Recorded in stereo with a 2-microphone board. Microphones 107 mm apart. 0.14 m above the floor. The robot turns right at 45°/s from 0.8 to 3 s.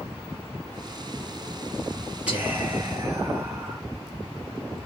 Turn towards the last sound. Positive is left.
turn(degrees=-125)